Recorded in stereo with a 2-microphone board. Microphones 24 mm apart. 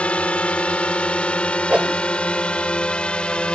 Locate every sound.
0.0 s a drone: 55° left (ahead or behind); by 3.6 s 45° left (ahead or behind)
1.7 s a whoosh: 60° right (ahead or behind)